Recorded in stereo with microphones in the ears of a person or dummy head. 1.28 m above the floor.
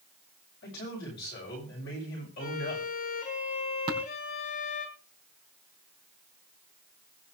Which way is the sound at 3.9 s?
30° right (ahead or behind).